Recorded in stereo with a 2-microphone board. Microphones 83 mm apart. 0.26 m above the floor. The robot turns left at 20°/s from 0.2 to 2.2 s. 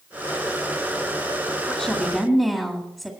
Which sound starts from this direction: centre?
A woman speaking, at 1.7 s.